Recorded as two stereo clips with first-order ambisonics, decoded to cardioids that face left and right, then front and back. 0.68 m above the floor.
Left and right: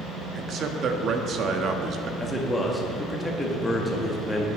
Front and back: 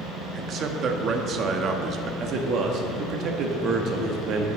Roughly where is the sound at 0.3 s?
Behind right.